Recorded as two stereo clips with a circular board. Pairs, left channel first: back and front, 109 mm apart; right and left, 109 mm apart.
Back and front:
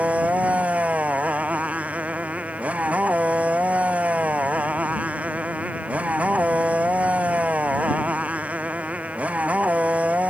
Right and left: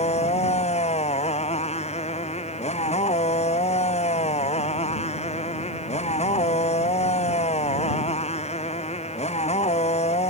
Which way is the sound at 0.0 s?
75° right.